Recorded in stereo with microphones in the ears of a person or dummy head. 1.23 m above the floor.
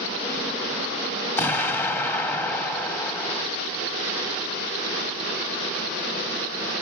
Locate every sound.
1.4 s an explosion: 10° left (ahead or behind), 1.2 m